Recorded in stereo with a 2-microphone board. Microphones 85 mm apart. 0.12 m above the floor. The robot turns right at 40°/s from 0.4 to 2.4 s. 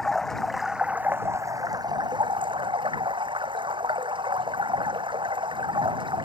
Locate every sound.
0.0 s running water: 175° left; by 6.2 s 105° right